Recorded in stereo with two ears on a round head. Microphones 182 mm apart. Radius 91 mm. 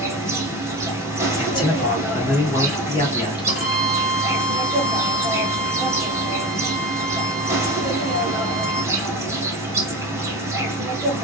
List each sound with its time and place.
0.0 s an insect: 15° right (ahead or behind), 0.8 m
1.4 s a man speaking: 25° left (ahead or behind), 0.8 m
3.5 s a violin: 35° left (ahead or behind), 1.1 m